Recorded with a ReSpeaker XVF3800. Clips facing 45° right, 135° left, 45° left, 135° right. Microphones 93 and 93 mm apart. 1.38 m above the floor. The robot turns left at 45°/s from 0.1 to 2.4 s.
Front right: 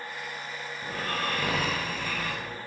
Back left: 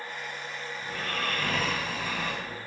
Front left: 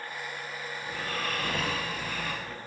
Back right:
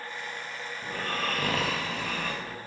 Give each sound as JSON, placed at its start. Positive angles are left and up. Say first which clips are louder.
{"t": 0.8, "sound": "snoring", "louder": "front right 2 dB, back right 3 dB", "azimuth_deg": -95, "distance_m": 1.0}